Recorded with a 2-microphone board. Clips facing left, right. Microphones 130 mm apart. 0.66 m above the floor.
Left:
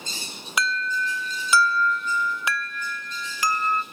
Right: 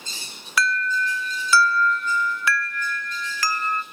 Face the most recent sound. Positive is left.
turn(degrees=20)  # may be behind; listen again after turning